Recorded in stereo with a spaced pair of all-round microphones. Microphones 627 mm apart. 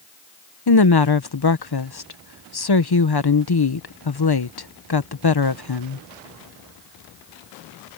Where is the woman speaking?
40° left (ahead or behind).